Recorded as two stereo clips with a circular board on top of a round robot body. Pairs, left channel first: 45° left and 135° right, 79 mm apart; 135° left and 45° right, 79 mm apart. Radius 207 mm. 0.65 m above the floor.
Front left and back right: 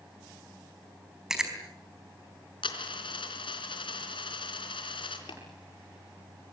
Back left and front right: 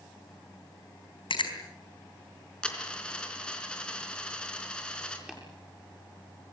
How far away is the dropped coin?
About 3.5 m.